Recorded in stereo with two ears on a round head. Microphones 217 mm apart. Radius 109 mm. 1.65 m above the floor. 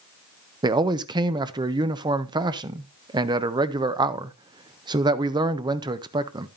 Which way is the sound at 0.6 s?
20° right (ahead or behind).